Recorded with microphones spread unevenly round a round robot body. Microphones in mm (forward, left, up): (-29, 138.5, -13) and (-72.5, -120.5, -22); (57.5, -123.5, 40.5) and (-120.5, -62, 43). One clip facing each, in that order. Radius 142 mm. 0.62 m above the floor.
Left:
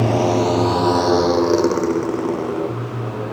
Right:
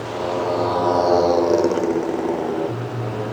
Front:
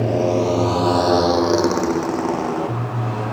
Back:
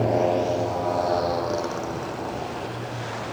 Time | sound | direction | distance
0.0 | a motorcycle | 60° left | ?